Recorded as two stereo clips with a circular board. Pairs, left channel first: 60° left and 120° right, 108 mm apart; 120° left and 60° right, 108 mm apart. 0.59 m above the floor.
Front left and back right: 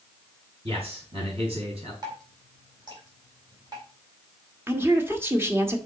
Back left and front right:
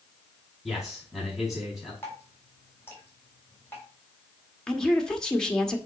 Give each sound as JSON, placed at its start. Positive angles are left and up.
{"t": 0.7, "sound": "a man speaking", "azimuth_deg": -145, "distance_m": 5.0}
{"t": 2.0, "sound": "dripping", "azimuth_deg": -170, "distance_m": 3.5}
{"t": 4.7, "sound": "a woman speaking", "azimuth_deg": -165, "distance_m": 1.3}